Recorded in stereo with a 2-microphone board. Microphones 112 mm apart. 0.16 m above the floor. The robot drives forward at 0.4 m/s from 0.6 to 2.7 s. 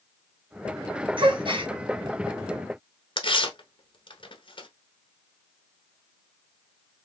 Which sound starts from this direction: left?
Tearing paper, at 3.2 s.